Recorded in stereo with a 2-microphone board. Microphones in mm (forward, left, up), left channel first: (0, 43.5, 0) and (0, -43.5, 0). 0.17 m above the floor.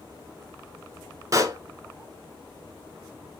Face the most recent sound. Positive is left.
turn(degrees=-40)  # may be behind; listen again after turning